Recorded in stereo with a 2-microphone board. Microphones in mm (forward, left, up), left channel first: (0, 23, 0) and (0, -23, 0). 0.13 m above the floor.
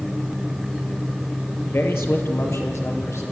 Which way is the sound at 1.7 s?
60° left (ahead or behind).